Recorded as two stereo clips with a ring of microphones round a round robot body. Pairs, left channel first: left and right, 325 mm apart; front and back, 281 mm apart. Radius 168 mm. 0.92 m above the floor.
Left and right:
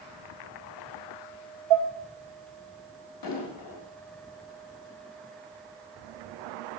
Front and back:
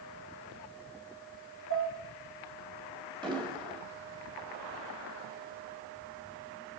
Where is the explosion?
105° left, 2.5 m.